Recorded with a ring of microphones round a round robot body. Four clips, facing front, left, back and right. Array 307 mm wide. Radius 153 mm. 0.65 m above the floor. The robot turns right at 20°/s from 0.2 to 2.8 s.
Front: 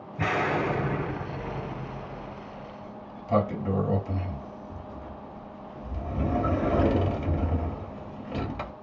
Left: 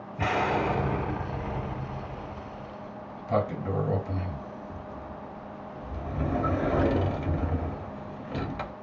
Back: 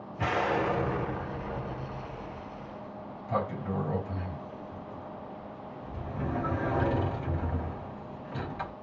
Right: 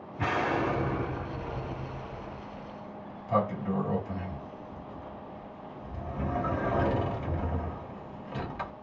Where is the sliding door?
35° left, 1.0 m.